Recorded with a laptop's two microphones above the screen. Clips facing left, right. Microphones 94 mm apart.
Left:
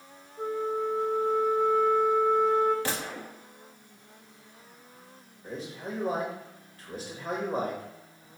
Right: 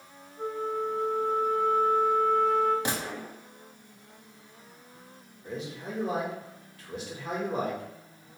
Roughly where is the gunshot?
Centre.